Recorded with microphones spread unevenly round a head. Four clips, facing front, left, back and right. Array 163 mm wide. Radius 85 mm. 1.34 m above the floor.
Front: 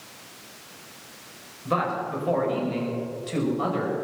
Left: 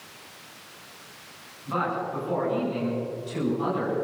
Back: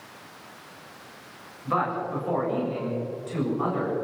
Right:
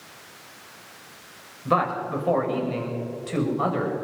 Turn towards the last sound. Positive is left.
turn(degrees=-65)